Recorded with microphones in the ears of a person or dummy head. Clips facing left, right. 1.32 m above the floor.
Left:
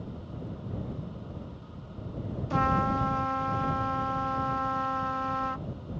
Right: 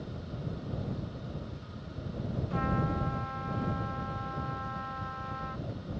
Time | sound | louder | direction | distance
2.5 | a trumpet | left 5 dB | 65° left (ahead or behind) | ?